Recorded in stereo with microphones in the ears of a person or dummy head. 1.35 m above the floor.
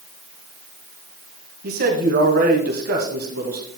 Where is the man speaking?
55° right (ahead or behind), 1.8 m.